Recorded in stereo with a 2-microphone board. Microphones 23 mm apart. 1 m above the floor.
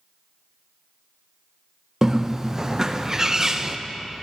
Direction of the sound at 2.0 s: 25° right (ahead or behind).